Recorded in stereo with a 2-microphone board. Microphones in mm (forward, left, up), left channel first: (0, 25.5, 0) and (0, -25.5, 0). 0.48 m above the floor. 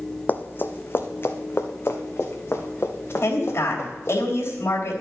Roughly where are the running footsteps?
Left.